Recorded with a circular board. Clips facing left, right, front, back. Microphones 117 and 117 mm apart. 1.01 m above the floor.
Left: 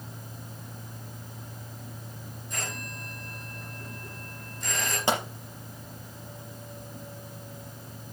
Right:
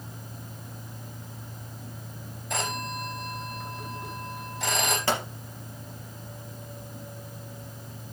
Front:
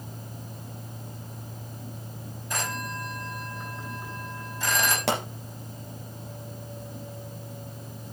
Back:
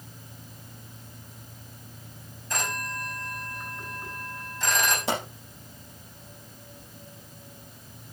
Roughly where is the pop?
Ahead.